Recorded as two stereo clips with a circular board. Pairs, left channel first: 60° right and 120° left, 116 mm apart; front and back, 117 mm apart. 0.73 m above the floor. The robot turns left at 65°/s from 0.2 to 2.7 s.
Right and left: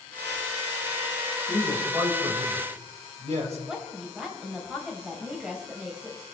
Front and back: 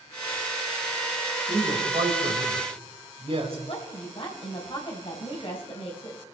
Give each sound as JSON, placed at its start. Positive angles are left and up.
{"t": 1.5, "sound": "a man speaking", "azimuth_deg": -140, "distance_m": 3.0}
{"t": 3.7, "sound": "a woman speaking", "azimuth_deg": 40, "distance_m": 3.5}